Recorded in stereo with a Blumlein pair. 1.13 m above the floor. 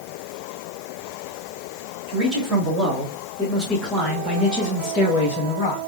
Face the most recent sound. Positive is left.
turn(degrees=40)